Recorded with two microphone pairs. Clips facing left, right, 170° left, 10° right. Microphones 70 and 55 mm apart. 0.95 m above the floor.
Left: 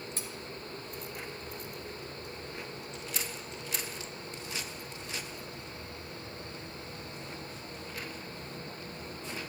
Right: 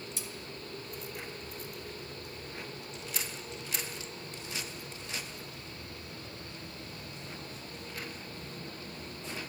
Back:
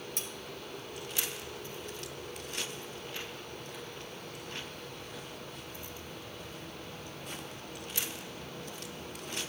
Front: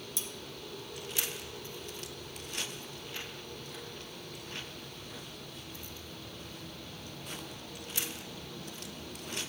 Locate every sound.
0.2 s cutlery clinking: 135° left, 0.8 m